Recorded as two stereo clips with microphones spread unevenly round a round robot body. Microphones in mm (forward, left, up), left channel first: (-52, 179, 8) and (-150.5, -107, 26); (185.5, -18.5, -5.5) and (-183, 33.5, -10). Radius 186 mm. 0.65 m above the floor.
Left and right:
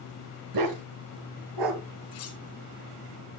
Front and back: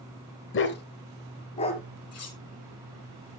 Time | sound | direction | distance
0.5 | a dog barking | 70° right | 1.0 m
2.1 | cutlery clinking | 45° left | 4 m